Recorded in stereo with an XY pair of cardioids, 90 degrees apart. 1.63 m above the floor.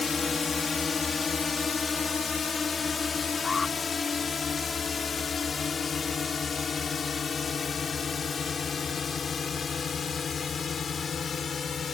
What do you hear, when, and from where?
0.0 s a drone: 35° left; by 11.9 s 50° left
3.4 s an alarm: 35° left